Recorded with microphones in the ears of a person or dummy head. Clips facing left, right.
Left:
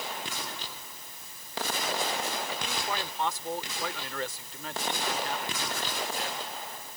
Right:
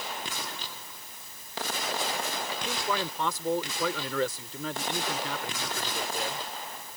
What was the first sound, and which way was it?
A man speaking, 85° right.